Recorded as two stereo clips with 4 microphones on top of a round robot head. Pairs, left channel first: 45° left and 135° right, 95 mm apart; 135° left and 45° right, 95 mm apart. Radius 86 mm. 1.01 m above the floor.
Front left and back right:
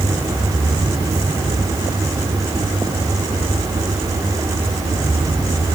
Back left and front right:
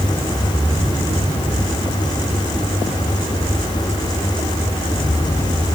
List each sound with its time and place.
Only background noise.